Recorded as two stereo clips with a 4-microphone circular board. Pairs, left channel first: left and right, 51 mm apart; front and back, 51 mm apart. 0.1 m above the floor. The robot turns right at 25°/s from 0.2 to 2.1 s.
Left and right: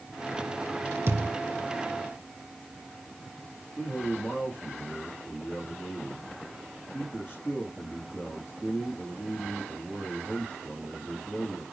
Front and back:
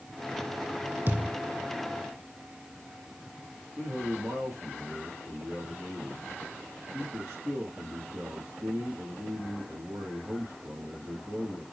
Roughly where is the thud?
Behind right.